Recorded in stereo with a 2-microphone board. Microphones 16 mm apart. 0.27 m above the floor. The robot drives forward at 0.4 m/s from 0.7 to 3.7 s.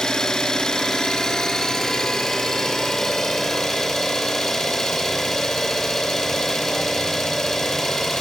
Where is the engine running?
40° left (ahead or behind), 1.4 m; by 8.2 s 25° left (ahead or behind), 2.5 m.